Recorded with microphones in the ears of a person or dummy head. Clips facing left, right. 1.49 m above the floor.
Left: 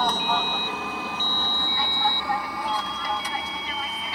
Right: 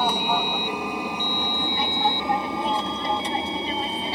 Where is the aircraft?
10° right (ahead or behind); by 4.2 s 25° right (ahead or behind).